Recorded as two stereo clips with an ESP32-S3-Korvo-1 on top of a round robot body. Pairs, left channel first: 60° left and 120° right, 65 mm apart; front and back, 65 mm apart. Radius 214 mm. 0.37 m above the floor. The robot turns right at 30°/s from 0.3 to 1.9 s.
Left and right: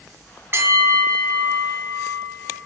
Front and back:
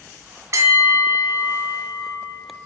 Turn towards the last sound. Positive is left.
turn(degrees=-125)